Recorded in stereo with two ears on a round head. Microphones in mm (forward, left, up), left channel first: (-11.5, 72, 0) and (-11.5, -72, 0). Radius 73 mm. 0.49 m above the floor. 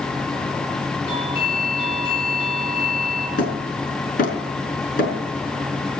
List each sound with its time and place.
1.1 s a doorbell: 40° left (ahead or behind), 8 m
3.4 s hammering: 60° left (ahead or behind), 5.5 m